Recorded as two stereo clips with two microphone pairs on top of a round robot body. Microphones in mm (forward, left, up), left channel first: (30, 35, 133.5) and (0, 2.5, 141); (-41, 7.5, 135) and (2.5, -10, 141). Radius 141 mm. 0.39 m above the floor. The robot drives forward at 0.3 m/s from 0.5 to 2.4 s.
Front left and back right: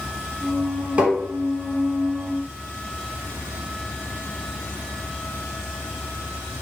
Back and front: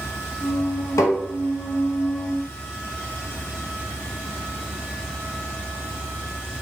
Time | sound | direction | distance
1.0 | tapping | 170° left | 1.0 m